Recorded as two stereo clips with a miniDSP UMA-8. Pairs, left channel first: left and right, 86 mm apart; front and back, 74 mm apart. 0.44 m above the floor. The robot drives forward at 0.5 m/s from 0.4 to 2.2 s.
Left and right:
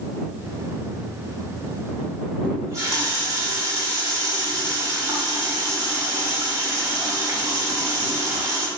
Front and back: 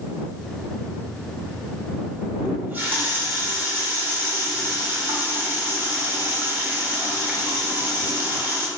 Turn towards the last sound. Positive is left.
turn(degrees=-125)